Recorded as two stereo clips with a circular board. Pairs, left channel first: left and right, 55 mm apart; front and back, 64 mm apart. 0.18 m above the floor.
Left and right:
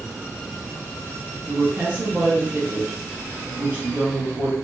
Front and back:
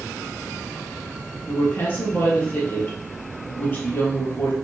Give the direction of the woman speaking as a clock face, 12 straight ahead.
2 o'clock.